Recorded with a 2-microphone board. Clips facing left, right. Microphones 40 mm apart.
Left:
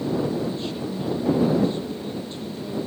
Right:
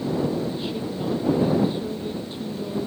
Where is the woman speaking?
10° right (ahead or behind).